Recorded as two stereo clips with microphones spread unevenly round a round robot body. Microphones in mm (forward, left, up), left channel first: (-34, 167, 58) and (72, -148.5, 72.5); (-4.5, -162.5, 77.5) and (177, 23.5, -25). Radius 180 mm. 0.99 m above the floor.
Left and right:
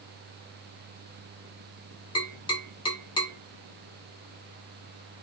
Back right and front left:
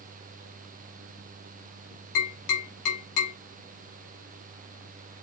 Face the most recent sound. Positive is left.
turn(degrees=-175)